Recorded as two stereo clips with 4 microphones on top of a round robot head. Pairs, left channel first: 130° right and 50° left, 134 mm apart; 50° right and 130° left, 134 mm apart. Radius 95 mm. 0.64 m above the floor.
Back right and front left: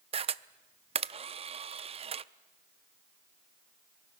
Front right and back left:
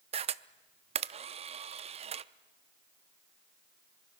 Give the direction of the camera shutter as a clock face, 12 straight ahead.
9 o'clock.